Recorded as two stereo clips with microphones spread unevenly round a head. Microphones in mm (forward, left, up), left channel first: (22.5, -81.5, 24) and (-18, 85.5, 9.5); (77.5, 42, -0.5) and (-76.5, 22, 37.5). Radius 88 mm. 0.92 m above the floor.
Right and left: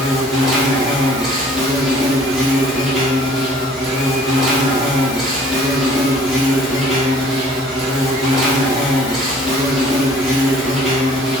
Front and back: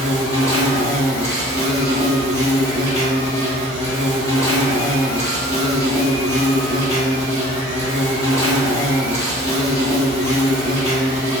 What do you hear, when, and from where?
0.0 s an insect: 25° left, 1.4 m